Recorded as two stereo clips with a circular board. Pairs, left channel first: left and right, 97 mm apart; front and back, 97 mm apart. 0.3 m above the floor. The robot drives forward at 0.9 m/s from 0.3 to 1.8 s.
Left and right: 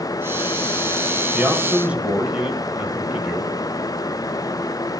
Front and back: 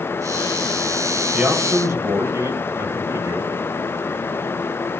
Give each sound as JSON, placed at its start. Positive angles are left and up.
{"t": 1.3, "sound": "a man speaking", "azimuth_deg": -120, "distance_m": 0.8}